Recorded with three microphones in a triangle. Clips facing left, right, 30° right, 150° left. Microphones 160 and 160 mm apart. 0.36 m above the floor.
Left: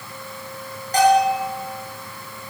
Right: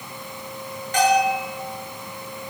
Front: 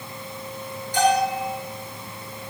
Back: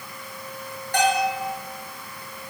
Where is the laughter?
I don't hear laughter.